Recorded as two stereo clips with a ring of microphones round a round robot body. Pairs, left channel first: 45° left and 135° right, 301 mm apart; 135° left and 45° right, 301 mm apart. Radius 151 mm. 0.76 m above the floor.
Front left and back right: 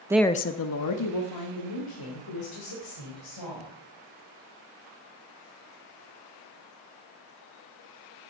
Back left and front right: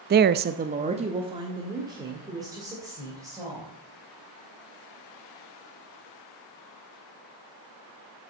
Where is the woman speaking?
65° right, 0.5 m; by 3.7 s 35° left, 4 m.